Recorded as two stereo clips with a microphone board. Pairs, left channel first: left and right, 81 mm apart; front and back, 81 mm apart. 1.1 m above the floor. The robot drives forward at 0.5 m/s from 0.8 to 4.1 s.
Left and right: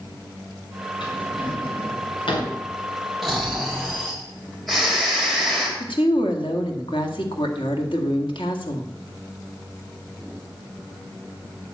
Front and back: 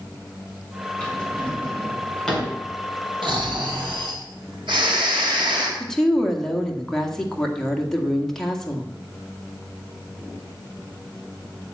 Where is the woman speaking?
85° left, 1.9 m.